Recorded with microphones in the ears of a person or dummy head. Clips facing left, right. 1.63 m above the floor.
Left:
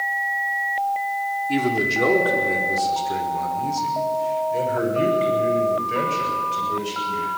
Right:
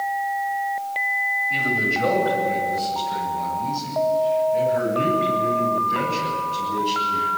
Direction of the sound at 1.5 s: 90° left.